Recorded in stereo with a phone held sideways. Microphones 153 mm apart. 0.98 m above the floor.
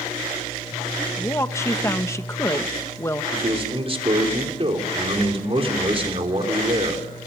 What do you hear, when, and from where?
1.2 s a woman speaking: 20° left (ahead or behind), 1.1 m
3.3 s a man speaking: 40° right (ahead or behind), 3.5 m